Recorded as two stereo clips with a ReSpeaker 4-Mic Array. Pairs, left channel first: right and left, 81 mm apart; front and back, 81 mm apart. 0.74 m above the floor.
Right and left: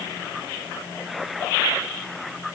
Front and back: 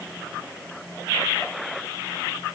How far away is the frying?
I don't hear frying.